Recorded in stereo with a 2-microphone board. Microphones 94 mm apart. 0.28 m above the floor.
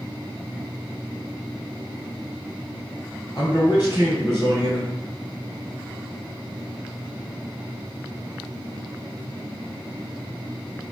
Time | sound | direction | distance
3.4 | a man speaking | 45° left (ahead or behind) | 1.7 m